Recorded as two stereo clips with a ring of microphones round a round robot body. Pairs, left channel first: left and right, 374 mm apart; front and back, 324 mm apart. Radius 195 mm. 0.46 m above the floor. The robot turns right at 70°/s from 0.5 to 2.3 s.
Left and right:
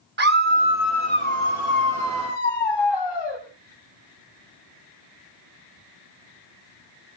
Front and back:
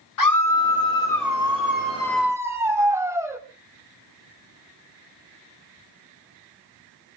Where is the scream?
30° right, 3 m; by 3.4 s 100° left, 3 m.